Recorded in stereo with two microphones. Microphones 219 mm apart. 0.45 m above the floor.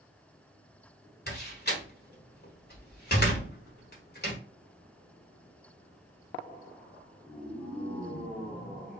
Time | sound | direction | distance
1.3 | a door slam | 50° left (ahead or behind) | 1.5 m